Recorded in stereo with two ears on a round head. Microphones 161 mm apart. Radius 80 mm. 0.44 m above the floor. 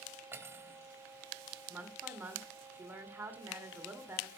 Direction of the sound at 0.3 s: 15° right (ahead or behind).